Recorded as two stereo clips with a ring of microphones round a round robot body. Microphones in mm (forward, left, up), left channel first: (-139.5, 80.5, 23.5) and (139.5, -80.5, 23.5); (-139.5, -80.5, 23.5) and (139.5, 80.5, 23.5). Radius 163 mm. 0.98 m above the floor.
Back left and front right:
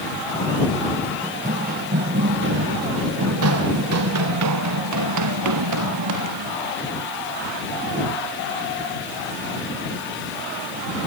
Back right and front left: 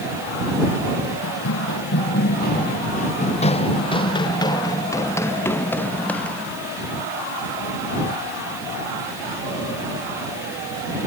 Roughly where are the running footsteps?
Right.